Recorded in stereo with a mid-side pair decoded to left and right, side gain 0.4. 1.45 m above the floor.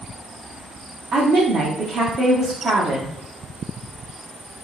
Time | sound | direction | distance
1.1 | a woman speaking | 60° right | 0.8 m